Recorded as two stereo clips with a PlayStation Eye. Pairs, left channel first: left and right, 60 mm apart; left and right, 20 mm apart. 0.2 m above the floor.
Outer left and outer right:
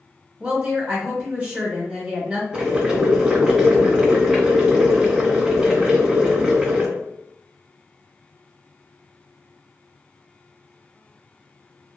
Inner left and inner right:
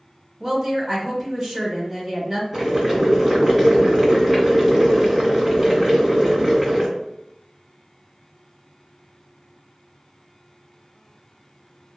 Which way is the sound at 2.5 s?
5° right (ahead or behind).